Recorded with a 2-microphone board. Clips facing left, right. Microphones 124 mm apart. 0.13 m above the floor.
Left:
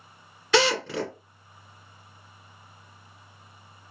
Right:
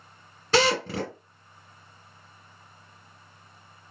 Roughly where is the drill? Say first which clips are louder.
Even; right.